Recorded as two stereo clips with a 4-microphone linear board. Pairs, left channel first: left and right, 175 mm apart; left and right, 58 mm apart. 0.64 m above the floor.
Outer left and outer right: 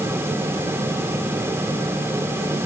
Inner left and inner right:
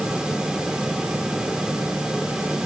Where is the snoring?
No snoring in this recording.